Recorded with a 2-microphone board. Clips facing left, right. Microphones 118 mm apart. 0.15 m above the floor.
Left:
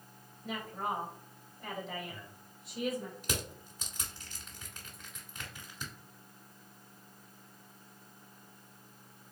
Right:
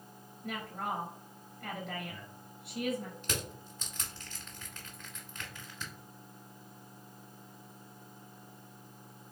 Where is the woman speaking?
65° right (ahead or behind), 2 m.